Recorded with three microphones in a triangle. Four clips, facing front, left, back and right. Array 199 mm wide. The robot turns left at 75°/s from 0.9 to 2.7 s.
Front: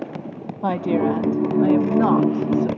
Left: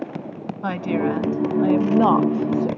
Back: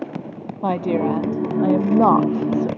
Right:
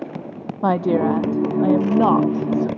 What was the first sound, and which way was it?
A woman speaking, 95° right.